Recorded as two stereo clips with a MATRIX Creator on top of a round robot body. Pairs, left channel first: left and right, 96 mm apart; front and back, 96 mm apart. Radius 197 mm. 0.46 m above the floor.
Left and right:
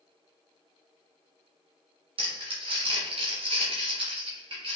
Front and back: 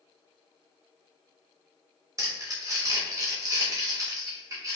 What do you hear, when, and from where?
2.2 s crumpling: 120° right, 0.9 m